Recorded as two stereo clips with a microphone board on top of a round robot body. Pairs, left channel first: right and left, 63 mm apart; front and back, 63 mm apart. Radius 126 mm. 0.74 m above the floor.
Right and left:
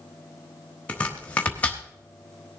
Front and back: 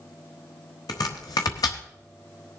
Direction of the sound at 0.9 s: 20° right.